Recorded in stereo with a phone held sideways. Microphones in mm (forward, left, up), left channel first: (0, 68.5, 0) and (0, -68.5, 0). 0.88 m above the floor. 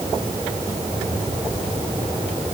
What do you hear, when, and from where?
Only background noise.